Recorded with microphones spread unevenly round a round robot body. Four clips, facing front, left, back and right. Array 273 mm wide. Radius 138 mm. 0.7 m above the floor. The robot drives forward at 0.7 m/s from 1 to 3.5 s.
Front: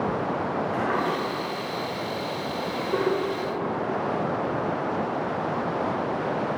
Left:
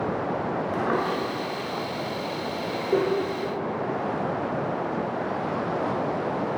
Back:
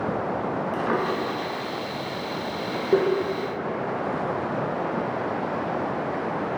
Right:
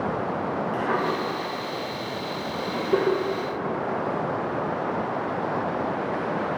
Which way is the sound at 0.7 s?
140° left.